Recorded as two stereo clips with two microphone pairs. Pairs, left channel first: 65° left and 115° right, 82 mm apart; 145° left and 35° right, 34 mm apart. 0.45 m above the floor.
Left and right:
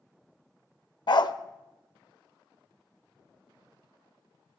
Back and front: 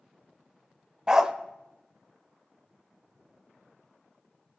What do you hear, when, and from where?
1.1 s a dog barking: 40° left, 0.5 m